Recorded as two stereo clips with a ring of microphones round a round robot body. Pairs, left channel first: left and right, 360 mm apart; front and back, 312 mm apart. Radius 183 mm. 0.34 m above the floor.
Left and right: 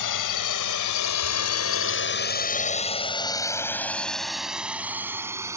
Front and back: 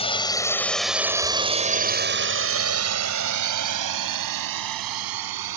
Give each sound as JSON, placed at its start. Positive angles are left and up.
{"t": 0.0, "sound": "a drone", "azimuth_deg": 70}